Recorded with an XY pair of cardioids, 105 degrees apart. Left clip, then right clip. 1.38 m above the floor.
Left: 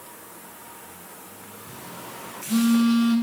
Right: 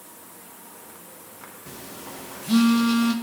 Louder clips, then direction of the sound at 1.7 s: Left 1 dB; 60° right.